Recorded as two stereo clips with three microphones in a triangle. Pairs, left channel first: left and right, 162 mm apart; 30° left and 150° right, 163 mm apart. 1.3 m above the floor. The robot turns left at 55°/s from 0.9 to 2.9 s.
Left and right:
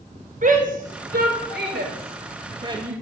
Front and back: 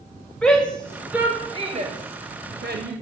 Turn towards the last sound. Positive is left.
turn(degrees=-165)